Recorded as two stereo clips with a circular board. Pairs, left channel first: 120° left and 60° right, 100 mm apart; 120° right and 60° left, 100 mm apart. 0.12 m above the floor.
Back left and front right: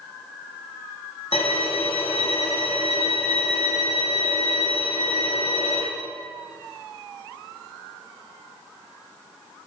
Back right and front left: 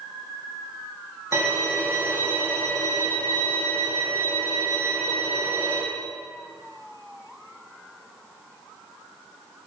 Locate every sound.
1.3 s a violin: 125° left, 2.5 m